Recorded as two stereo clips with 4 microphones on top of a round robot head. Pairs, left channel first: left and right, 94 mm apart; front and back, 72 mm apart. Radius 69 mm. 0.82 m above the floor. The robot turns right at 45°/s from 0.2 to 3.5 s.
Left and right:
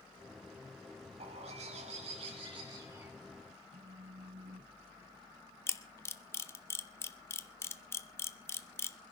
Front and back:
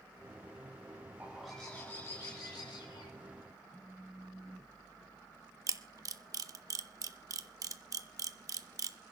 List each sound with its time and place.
1.2 s a bird: 100° right, 5 m; by 3.1 s 15° right, 5 m
3.7 s a phone buzzing: 80° right, 7 m
5.7 s a camera shutter: 150° left, 1.5 m